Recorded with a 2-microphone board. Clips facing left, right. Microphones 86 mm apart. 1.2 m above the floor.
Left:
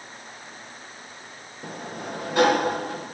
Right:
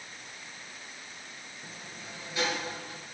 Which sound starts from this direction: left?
A sliding door, at 1.6 s.